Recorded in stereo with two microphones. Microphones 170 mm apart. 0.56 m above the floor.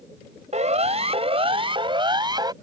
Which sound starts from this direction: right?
A siren, at 0.5 s.